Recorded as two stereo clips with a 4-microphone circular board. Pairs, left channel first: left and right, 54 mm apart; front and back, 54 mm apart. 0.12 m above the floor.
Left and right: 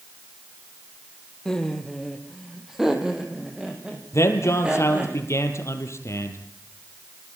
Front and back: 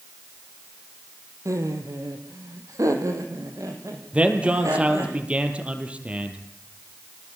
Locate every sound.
1.4 s laughter: 170° left, 4 m; by 5.1 s 155° right, 8 m
4.1 s a man speaking: 115° left, 4 m